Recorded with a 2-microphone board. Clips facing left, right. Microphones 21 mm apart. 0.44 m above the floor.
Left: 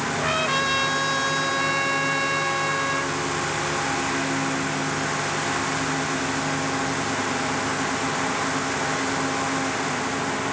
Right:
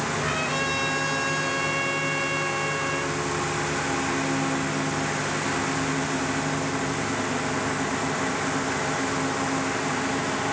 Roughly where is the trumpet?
Left.